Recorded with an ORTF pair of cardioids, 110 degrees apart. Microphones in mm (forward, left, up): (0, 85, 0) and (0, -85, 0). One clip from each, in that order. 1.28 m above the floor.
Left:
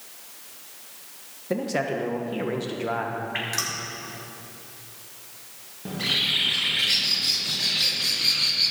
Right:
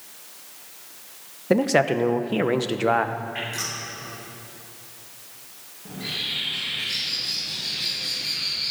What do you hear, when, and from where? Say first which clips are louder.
1.5 s a man speaking: right 7 dB; 45° right, 1.0 m
3.3 s dripping: left 1 dB; 55° left, 4.5 m
5.8 s a bird: left 5 dB; 60° left, 1.6 m